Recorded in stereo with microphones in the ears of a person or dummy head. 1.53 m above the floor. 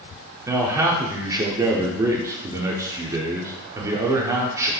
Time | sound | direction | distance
0.5 | a man speaking | 20° right (ahead or behind) | 0.5 m